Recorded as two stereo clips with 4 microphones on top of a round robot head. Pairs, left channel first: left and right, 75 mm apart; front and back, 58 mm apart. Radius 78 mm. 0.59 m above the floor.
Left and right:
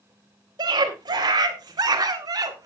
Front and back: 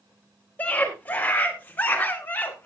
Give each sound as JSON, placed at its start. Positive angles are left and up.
{"t": 0.6, "sound": "a scream", "azimuth_deg": -65, "distance_m": 3.5}